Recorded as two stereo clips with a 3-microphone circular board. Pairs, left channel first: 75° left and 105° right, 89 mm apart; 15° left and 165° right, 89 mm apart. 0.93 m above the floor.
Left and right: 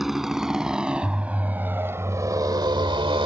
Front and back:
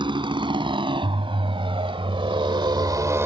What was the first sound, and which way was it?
A motorcycle, 170° left.